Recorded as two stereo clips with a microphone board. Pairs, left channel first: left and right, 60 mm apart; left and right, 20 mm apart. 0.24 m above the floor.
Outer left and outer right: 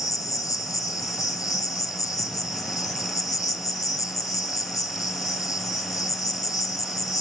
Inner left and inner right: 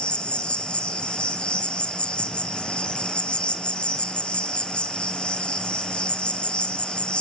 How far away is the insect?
About 0.9 m.